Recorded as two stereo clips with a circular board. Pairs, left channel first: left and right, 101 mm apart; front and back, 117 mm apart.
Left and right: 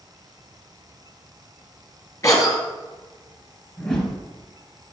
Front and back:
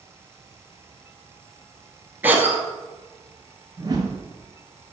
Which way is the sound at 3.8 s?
165° left.